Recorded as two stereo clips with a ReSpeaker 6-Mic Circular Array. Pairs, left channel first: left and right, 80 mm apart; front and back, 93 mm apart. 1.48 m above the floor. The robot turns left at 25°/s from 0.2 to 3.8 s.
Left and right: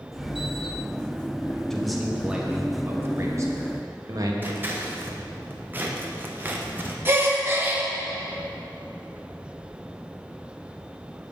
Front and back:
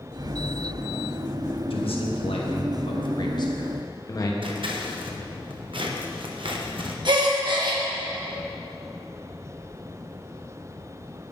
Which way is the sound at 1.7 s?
5° left.